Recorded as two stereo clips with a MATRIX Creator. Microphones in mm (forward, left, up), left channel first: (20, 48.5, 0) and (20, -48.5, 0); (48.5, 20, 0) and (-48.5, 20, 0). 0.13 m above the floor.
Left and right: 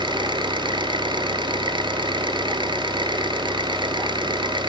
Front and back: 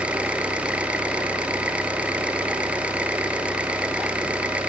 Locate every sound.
0.0 s an engine running: 105° right, 1.8 m